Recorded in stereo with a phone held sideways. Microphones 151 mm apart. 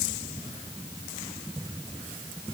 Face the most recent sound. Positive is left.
No sound to turn to.